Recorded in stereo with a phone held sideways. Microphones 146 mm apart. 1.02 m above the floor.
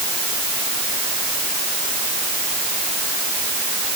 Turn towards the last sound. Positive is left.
No sound to turn to.